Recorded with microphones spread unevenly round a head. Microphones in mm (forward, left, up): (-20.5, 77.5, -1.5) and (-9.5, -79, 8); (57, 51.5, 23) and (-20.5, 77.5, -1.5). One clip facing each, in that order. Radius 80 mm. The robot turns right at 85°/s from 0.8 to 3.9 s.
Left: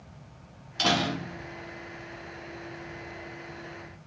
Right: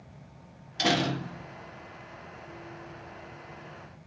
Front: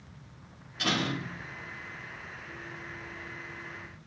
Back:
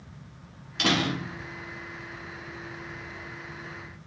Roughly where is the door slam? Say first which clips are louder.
Even, back 4 dB; behind.